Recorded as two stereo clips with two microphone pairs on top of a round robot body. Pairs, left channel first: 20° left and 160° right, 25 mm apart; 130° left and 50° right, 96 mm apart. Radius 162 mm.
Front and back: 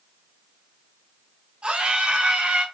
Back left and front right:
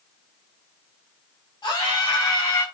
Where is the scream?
Straight behind, 4.5 m.